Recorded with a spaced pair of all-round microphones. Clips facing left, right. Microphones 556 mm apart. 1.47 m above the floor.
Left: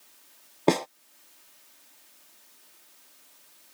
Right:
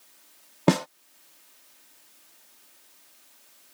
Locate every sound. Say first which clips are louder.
0.7 s a snare drum: right 1 dB; 35° right (ahead or behind)